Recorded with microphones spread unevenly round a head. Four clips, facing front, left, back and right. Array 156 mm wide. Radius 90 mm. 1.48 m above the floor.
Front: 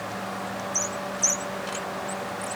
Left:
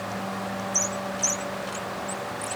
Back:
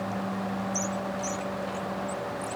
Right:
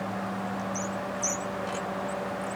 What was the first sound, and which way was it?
Only background noise.